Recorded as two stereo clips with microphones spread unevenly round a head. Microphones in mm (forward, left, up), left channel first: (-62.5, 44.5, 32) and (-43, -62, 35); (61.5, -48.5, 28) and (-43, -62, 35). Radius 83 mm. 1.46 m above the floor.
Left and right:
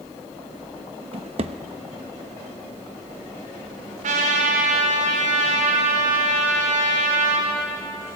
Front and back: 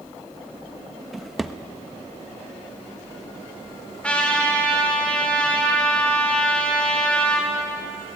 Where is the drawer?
90° right, 1.0 m.